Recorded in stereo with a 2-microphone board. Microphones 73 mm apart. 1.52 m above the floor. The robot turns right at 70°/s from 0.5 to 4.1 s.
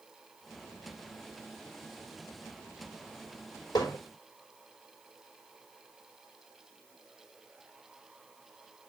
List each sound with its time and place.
3.8 s hammering: 65° left (ahead or behind), 5 m; by 4.0 s 80° left, 5 m